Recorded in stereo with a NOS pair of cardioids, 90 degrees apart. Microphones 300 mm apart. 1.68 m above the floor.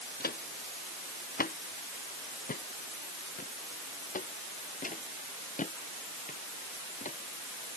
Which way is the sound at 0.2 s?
30° left.